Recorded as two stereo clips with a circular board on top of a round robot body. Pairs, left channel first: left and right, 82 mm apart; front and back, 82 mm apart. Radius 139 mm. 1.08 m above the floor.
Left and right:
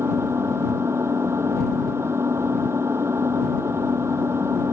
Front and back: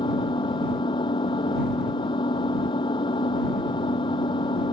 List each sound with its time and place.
0.0 s an engine running: 30° right